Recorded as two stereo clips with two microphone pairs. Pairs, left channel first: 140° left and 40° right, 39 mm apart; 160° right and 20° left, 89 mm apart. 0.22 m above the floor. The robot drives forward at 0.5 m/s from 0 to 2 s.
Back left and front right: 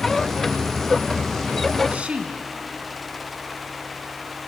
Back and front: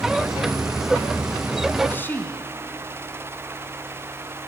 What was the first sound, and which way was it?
A woman speaking, 90° right.